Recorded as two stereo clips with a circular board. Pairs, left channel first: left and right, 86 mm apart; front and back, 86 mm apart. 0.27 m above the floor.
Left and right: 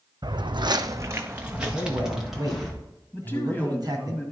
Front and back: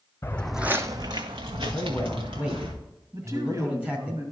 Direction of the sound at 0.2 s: 60° right.